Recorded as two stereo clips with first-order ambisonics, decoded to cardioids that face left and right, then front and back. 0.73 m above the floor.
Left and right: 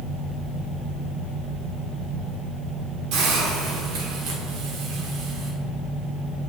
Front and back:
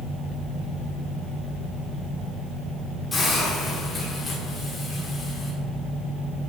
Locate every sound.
3.1 s a hiss: 75° right, 2.5 m